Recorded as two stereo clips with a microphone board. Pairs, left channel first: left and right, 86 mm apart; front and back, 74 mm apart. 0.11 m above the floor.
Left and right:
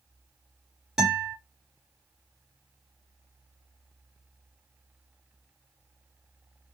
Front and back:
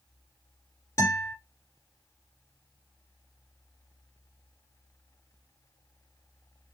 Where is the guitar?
5° right, 2 m.